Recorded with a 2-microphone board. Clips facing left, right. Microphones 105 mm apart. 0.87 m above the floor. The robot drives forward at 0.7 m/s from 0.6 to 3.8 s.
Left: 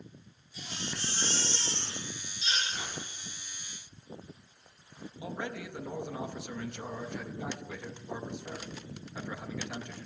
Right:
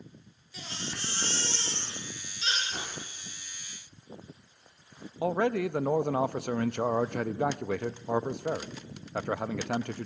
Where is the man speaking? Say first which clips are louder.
Right 12 dB; 65° right (ahead or behind), 0.5 m.